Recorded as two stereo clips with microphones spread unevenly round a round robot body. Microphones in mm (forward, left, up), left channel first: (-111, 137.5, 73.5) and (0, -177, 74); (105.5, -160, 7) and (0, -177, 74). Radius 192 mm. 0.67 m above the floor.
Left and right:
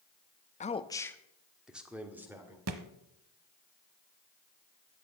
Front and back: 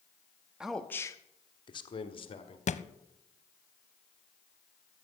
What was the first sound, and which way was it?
A man speaking, 55° left.